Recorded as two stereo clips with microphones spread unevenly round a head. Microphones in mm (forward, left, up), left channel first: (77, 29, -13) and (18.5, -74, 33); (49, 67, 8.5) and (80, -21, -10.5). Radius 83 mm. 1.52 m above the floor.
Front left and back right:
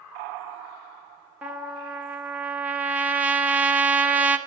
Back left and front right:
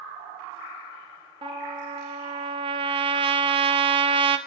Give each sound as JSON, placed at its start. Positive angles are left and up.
{"t": 1.4, "sound": "a trumpet", "azimuth_deg": -70, "distance_m": 1.1}